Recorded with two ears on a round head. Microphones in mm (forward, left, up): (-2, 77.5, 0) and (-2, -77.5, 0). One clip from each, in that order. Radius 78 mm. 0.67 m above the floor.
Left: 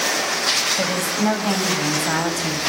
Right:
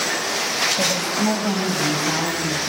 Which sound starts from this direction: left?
A woman speaking, at 0.8 s.